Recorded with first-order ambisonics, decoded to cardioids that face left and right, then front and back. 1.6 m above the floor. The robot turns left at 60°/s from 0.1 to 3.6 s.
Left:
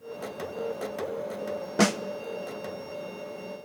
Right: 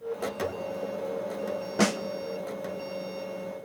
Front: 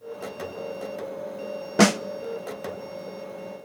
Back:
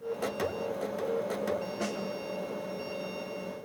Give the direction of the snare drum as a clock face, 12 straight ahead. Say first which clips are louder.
Left 2 dB, front 15 dB; 12 o'clock.